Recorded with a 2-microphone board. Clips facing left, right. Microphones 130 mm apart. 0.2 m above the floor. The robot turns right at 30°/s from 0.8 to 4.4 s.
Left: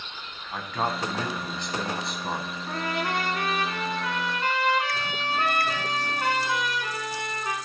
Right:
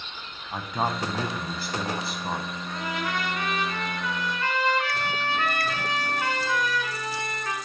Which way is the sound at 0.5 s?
15° right (ahead or behind).